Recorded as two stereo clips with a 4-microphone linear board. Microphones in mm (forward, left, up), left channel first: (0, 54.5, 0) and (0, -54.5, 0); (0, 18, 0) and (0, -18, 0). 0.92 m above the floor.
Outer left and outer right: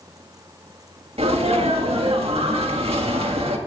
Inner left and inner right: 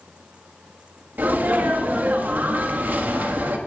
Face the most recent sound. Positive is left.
turn(degrees=-65)  # may be behind; listen again after turning